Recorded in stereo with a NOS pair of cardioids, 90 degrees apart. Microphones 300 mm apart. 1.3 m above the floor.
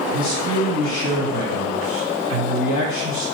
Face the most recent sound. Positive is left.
turn(degrees=70)